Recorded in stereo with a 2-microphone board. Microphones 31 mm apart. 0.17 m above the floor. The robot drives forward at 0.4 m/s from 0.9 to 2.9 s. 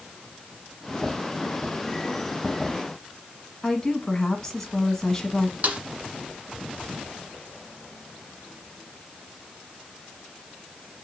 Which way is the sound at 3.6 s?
15° left (ahead or behind).